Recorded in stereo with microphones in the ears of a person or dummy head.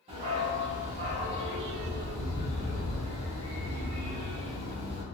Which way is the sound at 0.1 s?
35° right (ahead or behind).